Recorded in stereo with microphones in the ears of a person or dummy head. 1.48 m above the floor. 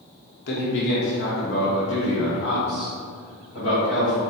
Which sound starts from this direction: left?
A man speaking, at 0.5 s.